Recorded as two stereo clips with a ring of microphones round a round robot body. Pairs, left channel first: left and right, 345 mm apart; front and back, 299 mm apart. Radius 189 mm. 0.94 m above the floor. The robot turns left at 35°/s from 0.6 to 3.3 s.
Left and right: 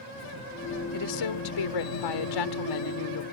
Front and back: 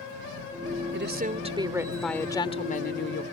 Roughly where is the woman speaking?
Behind left.